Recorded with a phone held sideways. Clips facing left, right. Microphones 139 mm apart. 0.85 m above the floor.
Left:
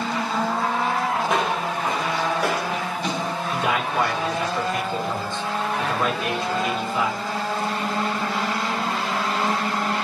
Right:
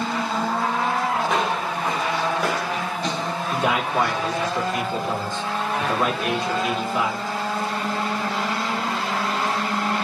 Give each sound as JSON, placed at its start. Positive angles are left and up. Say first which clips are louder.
{"t": 1.2, "sound": "footsteps", "louder": "even", "side_deg": 5, "distance_m": 1.8}
{"t": 3.5, "sound": "a man speaking", "louder": "right 2 dB", "side_deg": -35, "distance_m": 2.5}